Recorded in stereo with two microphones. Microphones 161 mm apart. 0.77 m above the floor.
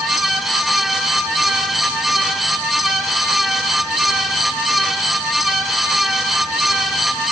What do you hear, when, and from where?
Only background noise.